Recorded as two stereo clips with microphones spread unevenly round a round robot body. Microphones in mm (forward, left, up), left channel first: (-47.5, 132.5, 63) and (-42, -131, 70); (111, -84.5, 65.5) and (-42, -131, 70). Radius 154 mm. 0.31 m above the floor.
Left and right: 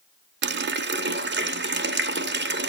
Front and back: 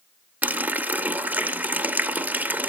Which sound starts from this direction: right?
A running tap, at 0.4 s.